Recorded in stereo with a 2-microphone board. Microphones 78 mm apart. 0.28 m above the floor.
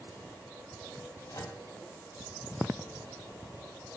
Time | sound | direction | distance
1.3 | a microwave | 50° left (ahead or behind) | 1.6 m